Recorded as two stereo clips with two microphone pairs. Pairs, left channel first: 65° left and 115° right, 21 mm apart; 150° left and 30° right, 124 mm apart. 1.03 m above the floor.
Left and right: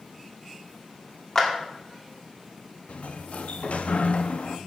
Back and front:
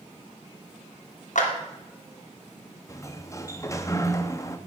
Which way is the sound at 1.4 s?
135° left.